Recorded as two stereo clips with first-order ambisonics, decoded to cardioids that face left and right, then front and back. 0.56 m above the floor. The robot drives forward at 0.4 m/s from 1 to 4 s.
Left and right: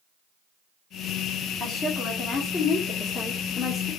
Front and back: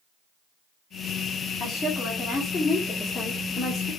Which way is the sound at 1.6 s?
50° left.